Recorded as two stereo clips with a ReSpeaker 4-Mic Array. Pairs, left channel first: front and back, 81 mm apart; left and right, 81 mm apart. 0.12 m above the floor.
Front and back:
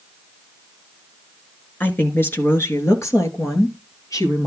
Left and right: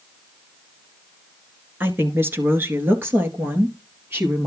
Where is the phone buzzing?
No phone buzzing in this recording.